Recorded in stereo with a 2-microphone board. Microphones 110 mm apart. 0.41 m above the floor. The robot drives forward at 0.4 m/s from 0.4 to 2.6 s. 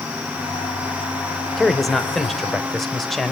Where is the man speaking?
Centre (ahead or behind), 1.4 m.